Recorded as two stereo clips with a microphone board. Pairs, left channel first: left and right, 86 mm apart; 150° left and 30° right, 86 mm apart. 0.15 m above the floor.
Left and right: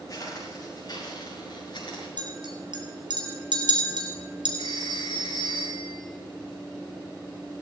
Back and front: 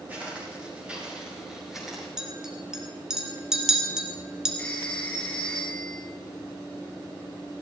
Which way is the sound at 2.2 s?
115° right.